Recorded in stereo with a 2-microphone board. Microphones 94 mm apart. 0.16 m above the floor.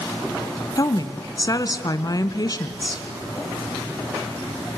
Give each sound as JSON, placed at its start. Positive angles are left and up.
{"t": 0.8, "sound": "a woman speaking", "side_deg": 40, "distance_m": 1.3}